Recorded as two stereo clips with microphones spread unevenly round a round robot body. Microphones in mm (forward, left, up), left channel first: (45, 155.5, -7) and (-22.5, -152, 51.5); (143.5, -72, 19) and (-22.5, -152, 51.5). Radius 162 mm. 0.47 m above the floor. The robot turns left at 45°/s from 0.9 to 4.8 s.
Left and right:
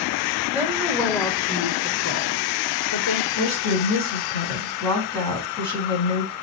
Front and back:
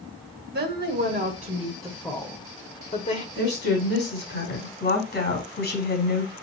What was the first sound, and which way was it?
A woman speaking, 165° left.